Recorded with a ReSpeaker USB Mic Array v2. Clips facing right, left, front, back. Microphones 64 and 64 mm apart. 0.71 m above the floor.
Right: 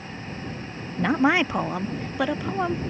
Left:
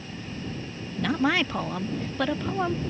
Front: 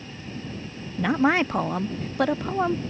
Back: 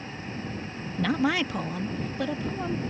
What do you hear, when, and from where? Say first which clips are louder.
1.0 s a woman speaking: right 4 dB, front 4 dB; 60° right; by 2.8 s 10° right